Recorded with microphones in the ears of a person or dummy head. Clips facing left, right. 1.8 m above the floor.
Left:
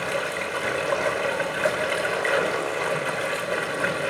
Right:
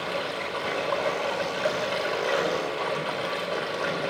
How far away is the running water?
About 5 m.